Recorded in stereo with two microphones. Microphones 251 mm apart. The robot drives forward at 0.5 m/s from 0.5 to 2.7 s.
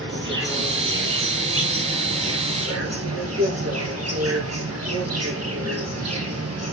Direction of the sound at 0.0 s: 50° right (ahead or behind).